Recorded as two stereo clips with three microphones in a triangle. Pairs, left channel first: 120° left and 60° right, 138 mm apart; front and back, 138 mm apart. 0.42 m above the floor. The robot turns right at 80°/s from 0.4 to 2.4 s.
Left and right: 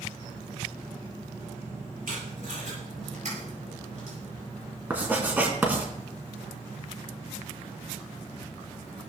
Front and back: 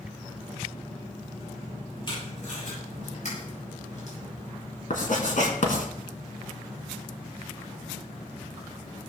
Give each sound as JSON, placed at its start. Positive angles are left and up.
{"t": 2.1, "sound": "tape being pulled", "azimuth_deg": -55, "distance_m": 8.0}
{"t": 4.9, "sound": "writing", "azimuth_deg": 15, "distance_m": 2.5}